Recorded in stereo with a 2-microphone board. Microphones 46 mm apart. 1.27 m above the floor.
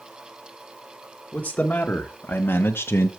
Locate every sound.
1.3 s a man speaking: 25° left (ahead or behind), 1.5 m; by 3.1 s 60° left (ahead or behind), 0.7 m